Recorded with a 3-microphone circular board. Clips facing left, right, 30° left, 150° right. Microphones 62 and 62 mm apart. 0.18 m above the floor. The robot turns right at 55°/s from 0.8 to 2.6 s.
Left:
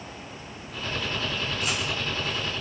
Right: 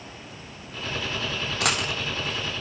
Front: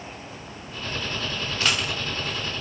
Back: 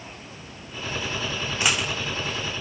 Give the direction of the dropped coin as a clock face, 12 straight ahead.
3 o'clock.